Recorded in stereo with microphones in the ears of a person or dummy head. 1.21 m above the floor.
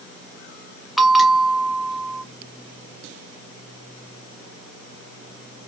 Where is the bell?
Centre (ahead or behind), 0.6 m.